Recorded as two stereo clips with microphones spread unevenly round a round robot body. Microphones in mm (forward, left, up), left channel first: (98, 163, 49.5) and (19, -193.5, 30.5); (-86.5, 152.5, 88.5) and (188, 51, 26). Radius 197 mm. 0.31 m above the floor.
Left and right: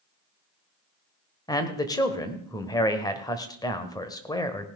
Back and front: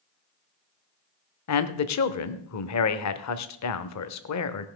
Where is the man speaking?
155° left, 1.2 m.